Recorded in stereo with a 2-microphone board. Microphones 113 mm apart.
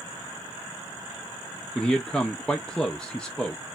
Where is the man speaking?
5° left (ahead or behind), 0.6 m.